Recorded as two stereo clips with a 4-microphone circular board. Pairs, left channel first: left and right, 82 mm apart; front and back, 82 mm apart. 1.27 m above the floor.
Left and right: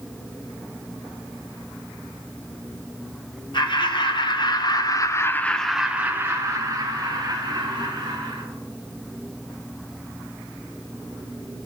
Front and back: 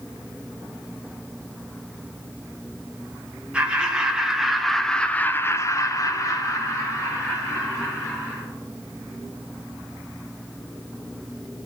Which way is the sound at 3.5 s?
105° left.